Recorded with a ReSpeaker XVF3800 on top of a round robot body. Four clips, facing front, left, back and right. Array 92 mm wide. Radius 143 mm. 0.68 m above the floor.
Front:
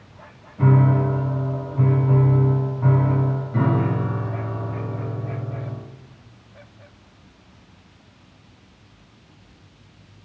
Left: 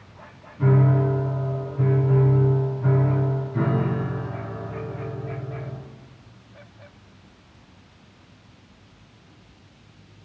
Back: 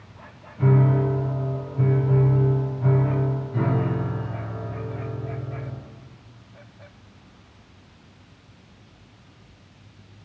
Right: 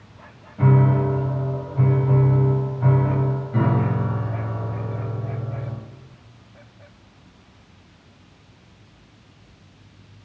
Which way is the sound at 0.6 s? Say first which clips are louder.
Right 1 dB, front 2 dB; 75° right.